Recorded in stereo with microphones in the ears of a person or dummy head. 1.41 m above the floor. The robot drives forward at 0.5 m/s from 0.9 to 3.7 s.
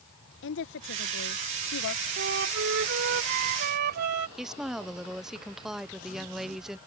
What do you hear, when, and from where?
0.4 s a woman speaking: 70° left (ahead or behind); by 2.1 s 75° left (ahead or behind)
2.2 s a flute: 70° right (ahead or behind); by 4.3 s 60° right (ahead or behind)
4.4 s a woman speaking: centre (ahead or behind)